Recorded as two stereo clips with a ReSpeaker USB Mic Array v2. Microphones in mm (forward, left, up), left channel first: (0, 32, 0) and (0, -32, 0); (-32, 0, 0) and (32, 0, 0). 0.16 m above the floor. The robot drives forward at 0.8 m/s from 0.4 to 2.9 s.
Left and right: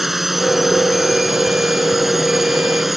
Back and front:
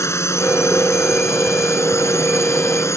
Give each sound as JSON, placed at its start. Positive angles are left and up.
{"t": 0.0, "sound": "a drone", "azimuth_deg": -175}